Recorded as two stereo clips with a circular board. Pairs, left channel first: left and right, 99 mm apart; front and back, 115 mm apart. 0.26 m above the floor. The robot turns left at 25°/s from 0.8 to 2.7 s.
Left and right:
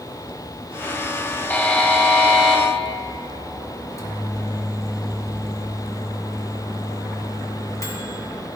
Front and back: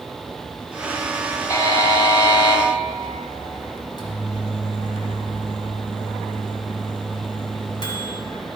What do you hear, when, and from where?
1.5 s a buzzer: 30° left, 1.1 m; by 2.6 s 5° left, 1.1 m
3.8 s a microwave: 40° left, 1.5 m